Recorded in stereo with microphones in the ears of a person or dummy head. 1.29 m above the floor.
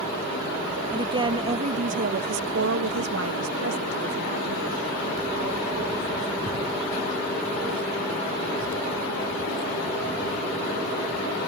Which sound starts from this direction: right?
A woman speaking, at 0.9 s.